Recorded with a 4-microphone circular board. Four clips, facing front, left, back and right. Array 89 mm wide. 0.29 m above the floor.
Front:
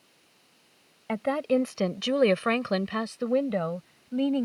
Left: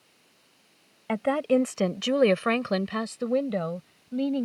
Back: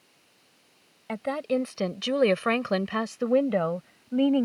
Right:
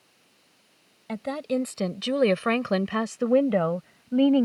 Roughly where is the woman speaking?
Left.